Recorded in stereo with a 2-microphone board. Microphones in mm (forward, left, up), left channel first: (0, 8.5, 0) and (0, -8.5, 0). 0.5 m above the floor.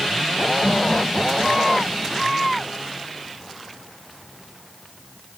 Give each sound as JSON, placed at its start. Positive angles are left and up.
{"t": 0.6, "sound": "laughter", "side_deg": -45, "distance_m": 5.0}